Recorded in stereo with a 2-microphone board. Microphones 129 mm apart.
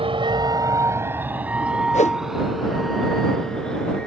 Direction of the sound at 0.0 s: 50° right (ahead or behind).